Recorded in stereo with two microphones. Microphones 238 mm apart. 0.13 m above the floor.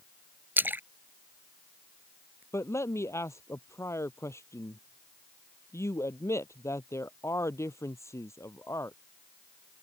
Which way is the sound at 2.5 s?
10° left (ahead or behind).